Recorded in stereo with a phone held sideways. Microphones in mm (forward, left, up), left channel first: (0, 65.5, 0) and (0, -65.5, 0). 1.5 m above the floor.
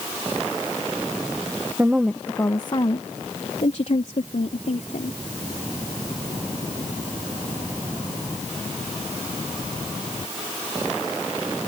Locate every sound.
1.8 s a woman speaking: 20° right (ahead or behind); by 5.2 s 70° left (ahead or behind)